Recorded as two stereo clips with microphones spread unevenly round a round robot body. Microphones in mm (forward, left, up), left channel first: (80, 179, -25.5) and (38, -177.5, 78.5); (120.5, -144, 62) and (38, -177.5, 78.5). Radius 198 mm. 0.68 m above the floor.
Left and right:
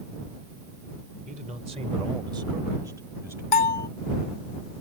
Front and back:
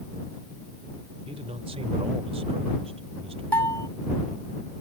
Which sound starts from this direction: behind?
A man speaking, at 1.3 s.